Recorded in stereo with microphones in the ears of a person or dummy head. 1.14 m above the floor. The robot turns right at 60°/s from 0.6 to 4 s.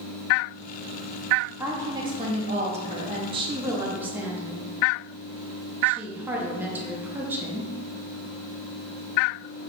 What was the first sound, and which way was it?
A woman speaking, 5° right (ahead or behind).